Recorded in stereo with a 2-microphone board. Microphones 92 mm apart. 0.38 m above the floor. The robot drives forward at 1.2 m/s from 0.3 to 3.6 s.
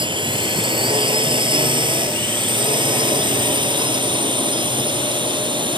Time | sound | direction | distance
0.0 | a drone | 60° right (ahead or behind) | ?